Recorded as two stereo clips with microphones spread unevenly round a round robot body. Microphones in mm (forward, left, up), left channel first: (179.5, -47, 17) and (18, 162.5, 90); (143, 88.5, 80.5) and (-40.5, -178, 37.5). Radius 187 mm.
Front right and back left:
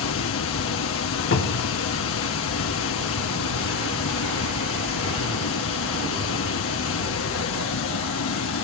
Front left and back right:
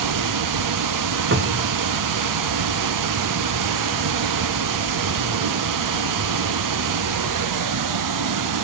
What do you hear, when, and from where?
0.0 s running water: 95° right, 0.9 m
1.3 s a cupboard door: 80° right, 1.6 m